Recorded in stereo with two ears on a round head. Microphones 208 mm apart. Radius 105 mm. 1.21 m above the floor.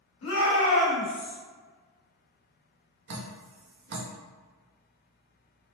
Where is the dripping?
45° right (ahead or behind), 0.7 m.